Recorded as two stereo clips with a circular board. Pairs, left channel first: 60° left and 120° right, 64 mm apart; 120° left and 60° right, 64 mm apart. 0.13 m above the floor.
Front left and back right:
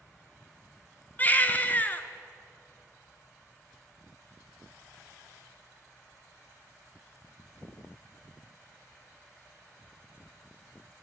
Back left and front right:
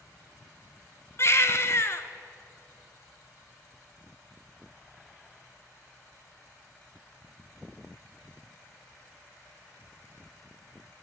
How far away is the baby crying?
About 0.6 m.